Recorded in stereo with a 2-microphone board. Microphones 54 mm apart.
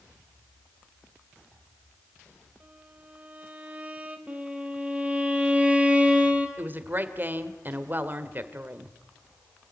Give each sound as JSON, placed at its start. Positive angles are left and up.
{"t": 2.6, "sound": "a violin", "side_deg": -25, "distance_m": 2.5}
{"t": 4.3, "sound": "a violin", "side_deg": -20, "distance_m": 4.0}
{"t": 6.6, "sound": "a woman speaking", "side_deg": -35, "distance_m": 2.5}